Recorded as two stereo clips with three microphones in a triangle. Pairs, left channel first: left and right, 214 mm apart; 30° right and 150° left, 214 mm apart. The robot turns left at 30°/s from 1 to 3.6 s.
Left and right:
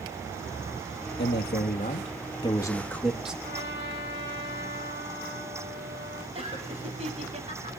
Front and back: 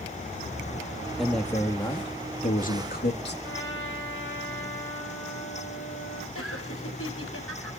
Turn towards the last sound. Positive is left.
turn(degrees=-30)